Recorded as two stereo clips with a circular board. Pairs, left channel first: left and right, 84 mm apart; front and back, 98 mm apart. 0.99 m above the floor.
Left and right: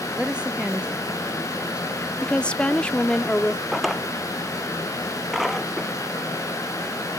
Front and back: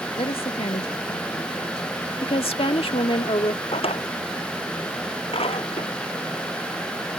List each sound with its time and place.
0.2 s a woman speaking: 10° right
2.2 s a woman speaking: 15° left
3.7 s a drawer: straight ahead